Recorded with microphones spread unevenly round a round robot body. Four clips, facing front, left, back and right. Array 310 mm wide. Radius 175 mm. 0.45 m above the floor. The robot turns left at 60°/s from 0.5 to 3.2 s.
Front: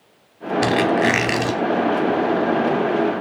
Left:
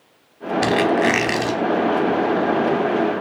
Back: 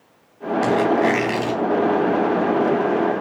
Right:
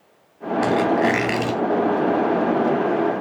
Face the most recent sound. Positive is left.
turn(degrees=-120)